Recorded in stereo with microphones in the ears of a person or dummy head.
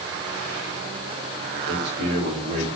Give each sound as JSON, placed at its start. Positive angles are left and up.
{"t": 1.7, "sound": "a man speaking", "side_deg": -60, "distance_m": 5.0}